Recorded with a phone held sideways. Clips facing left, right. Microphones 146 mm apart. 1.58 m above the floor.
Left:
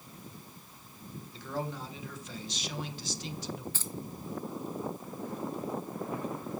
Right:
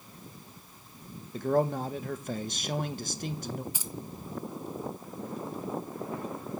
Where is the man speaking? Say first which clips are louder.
Right 11 dB; 55° right (ahead or behind), 1.0 m.